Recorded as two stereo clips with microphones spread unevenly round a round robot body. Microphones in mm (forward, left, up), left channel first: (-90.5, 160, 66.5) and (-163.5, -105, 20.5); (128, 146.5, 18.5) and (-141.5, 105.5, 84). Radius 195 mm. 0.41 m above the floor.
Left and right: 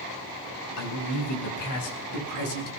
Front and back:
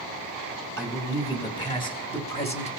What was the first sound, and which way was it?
A man speaking, 85° left.